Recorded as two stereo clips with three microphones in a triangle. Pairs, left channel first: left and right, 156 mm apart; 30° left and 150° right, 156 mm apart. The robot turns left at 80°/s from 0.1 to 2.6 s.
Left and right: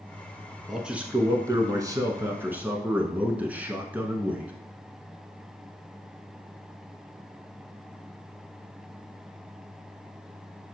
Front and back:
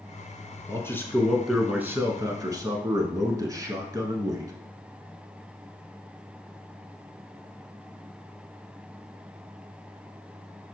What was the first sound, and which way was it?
A man speaking, straight ahead.